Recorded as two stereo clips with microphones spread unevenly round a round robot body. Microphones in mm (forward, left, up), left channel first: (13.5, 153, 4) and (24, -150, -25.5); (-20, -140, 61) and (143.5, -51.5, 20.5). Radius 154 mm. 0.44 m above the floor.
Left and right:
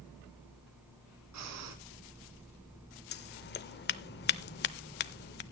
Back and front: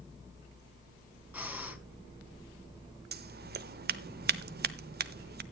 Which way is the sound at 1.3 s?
50° right.